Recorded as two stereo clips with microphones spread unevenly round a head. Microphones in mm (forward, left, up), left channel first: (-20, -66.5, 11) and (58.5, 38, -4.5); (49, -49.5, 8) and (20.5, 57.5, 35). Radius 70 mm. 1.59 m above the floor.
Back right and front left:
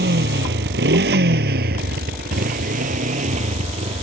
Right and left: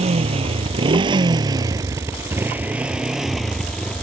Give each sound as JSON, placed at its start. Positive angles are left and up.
{"t": 0.0, "sound": "a motorcycle", "azimuth_deg": 75}